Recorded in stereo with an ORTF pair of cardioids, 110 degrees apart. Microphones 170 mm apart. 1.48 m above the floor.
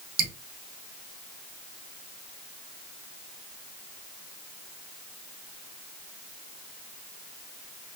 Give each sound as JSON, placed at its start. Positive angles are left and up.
{"t": 0.2, "sound": "dripping", "azimuth_deg": -55, "distance_m": 1.1}